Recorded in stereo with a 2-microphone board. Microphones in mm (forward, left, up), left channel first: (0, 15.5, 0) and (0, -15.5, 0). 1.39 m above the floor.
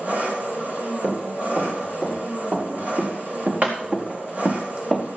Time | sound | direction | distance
0.0 | an engine running | 55° right (ahead or behind) | 7 m
1.0 | running footsteps | 60° right (ahead or behind) | 8 m